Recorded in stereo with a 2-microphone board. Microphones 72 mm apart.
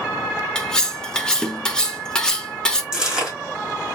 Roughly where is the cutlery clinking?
Centre.